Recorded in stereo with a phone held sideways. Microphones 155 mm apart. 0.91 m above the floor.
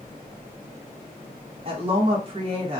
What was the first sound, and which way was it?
A woman speaking, 35° right (ahead or behind).